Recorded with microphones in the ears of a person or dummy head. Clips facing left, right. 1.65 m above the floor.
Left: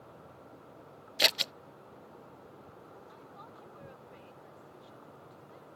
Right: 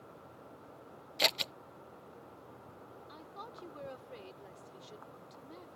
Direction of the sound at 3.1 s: 60° right (ahead or behind).